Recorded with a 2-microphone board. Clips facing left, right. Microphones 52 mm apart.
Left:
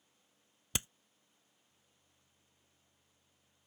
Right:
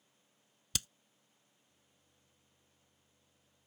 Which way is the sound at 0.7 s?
25° left (ahead or behind).